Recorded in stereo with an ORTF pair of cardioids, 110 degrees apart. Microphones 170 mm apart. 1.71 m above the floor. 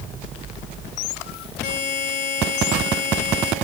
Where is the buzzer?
65° left, 4 m.